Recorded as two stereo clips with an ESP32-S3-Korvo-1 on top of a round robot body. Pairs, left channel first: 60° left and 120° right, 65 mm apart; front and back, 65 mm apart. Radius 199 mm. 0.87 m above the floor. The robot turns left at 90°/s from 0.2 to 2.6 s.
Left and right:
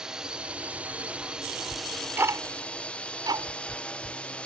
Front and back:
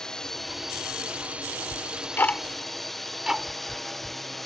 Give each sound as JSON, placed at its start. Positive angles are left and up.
{"t": 0.0, "sound": "a drone", "azimuth_deg": -65}
{"t": 1.7, "sound": "ticking", "azimuth_deg": -20}